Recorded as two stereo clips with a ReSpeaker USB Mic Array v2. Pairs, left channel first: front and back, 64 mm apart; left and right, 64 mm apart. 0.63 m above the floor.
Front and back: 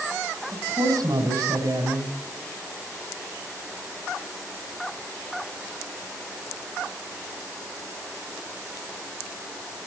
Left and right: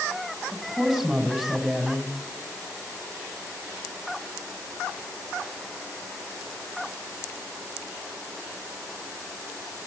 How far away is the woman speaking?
About 5 m.